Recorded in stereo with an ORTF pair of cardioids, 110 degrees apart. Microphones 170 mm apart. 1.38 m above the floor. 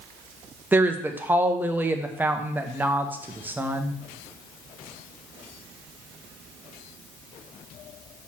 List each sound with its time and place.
0.7 s a woman speaking: 10° right, 0.9 m